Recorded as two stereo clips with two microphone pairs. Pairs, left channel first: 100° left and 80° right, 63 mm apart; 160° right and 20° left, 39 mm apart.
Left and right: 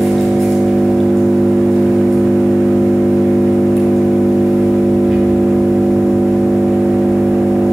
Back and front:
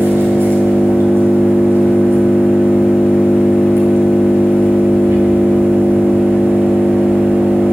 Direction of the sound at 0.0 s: 15° left.